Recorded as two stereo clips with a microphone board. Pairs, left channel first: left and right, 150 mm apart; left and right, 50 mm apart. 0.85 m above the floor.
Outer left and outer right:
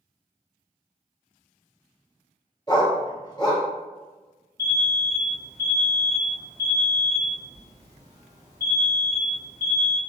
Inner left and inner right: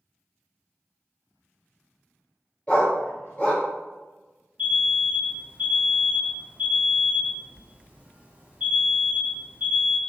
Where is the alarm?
25° right (ahead or behind), 1.3 m.